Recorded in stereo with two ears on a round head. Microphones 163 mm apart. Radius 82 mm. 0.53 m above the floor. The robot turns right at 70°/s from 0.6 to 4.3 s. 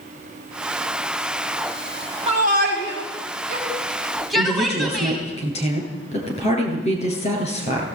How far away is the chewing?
I don't hear chewing.